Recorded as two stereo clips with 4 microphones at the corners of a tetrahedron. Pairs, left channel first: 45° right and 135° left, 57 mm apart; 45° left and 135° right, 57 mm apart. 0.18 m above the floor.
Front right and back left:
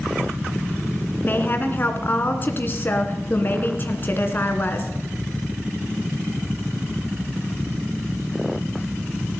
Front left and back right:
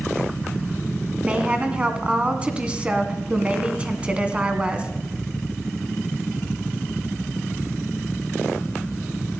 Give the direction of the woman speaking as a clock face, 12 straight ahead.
2 o'clock.